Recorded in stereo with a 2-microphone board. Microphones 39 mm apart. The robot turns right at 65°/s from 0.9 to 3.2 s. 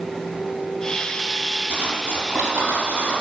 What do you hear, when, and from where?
1.7 s cutlery clinking: 35° right (ahead or behind), 5.5 m; by 3.2 s 45° right (ahead or behind), 5.5 m